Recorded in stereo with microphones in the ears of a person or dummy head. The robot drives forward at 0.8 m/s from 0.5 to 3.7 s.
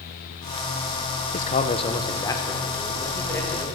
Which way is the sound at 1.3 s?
35° left (ahead or behind).